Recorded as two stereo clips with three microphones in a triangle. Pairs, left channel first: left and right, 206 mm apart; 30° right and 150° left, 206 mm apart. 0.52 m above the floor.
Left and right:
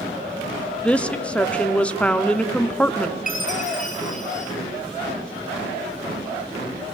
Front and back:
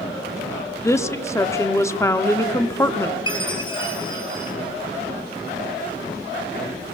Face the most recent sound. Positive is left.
turn(degrees=35)